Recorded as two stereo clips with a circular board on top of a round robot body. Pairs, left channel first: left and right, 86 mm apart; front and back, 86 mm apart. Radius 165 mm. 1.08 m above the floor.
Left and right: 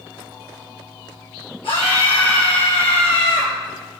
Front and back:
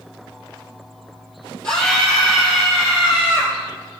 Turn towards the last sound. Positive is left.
turn(degrees=105)